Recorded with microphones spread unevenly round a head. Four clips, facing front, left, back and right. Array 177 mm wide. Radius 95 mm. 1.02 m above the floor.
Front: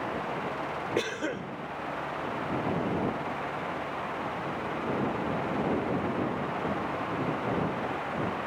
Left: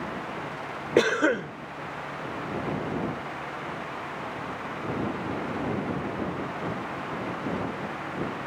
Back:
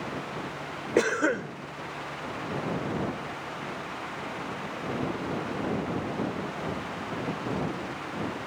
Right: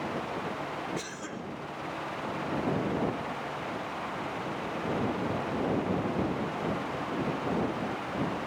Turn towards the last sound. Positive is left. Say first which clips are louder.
# left 16 dB, back 10 dB
turn(degrees=115)